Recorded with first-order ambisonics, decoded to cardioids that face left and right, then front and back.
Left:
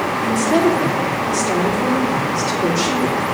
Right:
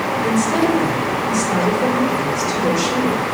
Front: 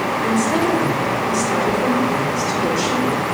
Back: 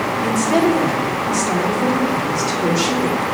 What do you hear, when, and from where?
0.2 s a woman speaking: 140° left, 3 m